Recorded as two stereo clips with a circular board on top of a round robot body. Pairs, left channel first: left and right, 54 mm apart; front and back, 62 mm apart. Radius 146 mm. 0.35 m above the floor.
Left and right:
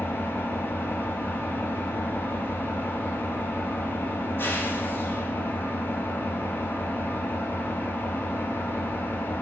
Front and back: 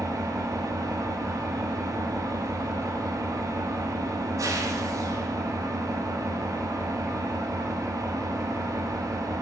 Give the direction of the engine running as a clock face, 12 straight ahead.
7 o'clock.